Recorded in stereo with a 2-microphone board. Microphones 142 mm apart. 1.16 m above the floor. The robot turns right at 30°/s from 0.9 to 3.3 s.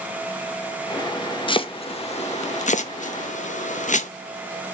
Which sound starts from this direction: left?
Chopping, at 1.5 s.